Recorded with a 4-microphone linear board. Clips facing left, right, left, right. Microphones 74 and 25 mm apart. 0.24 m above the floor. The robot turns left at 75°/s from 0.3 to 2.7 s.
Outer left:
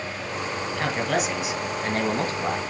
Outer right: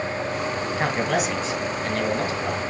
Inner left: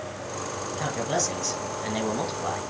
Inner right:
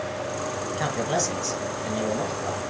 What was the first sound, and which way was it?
A man speaking, 145° right.